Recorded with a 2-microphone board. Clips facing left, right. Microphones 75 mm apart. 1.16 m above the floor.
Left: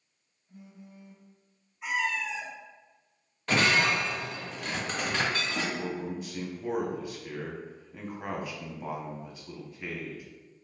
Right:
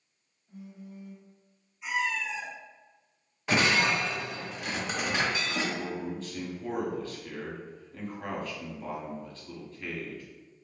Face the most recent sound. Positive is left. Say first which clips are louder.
# left 1 dB
turn(degrees=10)  # may be behind; listen again after turning